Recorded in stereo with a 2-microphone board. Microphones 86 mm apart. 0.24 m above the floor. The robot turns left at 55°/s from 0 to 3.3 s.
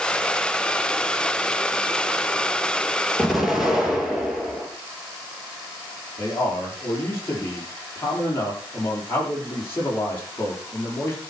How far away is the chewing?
No chewing in this recording.